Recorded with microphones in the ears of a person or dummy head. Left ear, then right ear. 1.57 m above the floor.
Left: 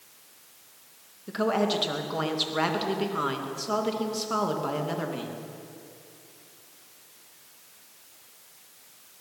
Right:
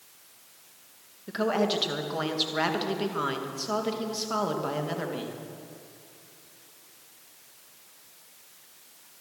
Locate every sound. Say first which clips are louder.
1.3 s a woman speaking: left 1 dB; 5° right (ahead or behind), 2.5 m